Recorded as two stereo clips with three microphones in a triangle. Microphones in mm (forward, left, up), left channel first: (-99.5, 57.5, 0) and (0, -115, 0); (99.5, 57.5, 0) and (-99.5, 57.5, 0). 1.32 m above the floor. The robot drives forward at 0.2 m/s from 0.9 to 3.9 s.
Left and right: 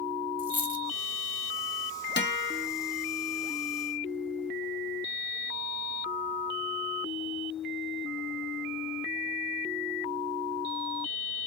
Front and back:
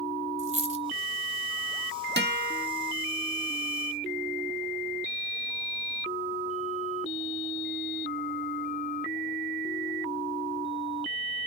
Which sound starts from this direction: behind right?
A dropped coin, at 0.4 s.